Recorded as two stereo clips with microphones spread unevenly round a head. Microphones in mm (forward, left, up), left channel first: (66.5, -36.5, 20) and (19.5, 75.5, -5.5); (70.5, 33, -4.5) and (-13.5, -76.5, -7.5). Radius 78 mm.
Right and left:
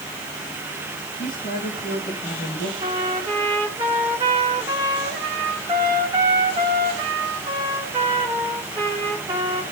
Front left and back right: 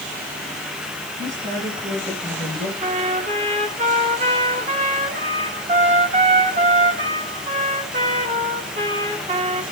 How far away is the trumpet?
About 2 m.